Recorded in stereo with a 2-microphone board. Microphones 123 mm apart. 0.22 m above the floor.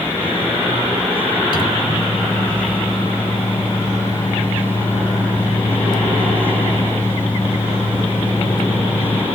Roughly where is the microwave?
Left.